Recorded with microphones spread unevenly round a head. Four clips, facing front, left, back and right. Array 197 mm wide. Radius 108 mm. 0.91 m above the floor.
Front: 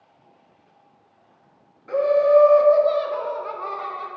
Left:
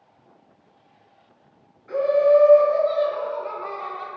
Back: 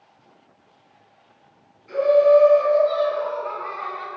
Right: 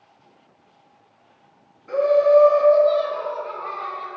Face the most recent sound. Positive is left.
turn(degrees=25)